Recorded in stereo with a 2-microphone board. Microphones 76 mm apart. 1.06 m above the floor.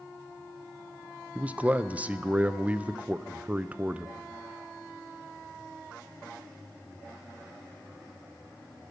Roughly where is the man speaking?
Centre.